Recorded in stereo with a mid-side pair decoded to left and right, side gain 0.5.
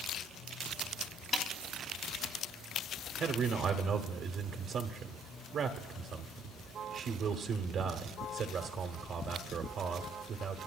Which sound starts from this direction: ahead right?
A man speaking, at 3.2 s.